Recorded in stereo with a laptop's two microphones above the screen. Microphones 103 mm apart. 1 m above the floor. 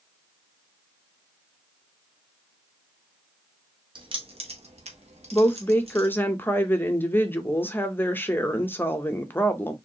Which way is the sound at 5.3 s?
20° left (ahead or behind).